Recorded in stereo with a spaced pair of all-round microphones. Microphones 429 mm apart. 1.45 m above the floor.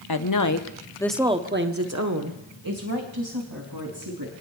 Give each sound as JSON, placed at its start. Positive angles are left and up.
{"t": 0.1, "sound": "a woman speaking", "side_deg": 60, "distance_m": 1.0}